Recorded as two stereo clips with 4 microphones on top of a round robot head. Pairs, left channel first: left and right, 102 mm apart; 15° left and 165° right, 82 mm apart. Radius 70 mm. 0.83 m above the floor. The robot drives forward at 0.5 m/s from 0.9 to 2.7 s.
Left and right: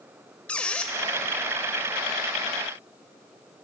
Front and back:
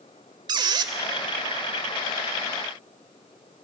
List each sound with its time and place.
0.5 s a squeak: 170° left, 0.8 m